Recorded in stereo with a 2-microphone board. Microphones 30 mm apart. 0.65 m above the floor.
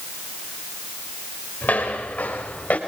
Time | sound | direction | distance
1.6 | footsteps | 75° left (ahead or behind) | 6 m